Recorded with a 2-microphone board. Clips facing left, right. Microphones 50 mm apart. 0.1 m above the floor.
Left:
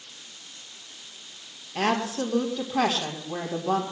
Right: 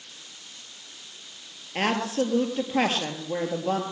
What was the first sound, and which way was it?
A woman speaking, 40° right (ahead or behind).